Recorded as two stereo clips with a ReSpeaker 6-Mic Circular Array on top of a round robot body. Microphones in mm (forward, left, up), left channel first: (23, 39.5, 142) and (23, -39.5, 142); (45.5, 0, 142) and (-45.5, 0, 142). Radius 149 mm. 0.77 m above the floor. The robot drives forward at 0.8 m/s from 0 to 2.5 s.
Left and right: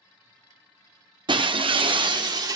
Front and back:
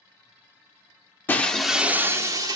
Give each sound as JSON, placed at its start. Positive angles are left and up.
{"t": 1.3, "sound": "breaking glass", "azimuth_deg": -70, "distance_m": 0.8}